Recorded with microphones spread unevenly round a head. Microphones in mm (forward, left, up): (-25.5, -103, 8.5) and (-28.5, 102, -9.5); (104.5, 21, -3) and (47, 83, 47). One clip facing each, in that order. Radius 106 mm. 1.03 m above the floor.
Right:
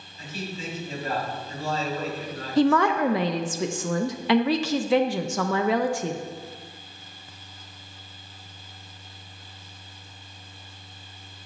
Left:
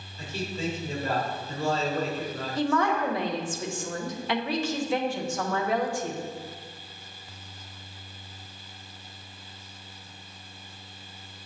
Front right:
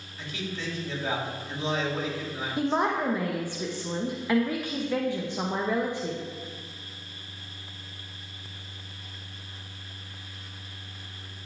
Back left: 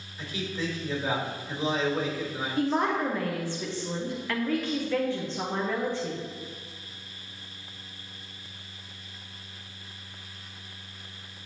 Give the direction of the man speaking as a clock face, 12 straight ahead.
11 o'clock.